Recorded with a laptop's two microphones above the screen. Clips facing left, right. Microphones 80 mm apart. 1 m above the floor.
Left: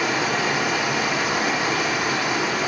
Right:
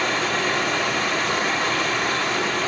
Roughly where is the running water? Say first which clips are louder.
Left 1 dB; centre.